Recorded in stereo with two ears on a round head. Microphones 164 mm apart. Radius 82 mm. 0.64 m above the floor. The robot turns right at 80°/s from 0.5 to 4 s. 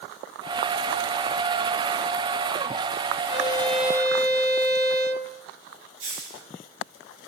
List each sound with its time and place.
3.3 s a violin: 140° left, 3 m; by 5.3 s 160° right, 3 m
6.0 s a hiss: 80° right, 7.5 m